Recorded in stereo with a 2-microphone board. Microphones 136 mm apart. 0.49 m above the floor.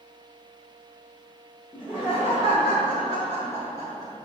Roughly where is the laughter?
Centre.